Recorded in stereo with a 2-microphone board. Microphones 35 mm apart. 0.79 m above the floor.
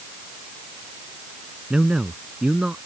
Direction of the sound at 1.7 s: 25° right (ahead or behind).